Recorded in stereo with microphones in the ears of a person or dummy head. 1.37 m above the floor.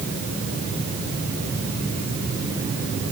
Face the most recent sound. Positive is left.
No sound to turn to.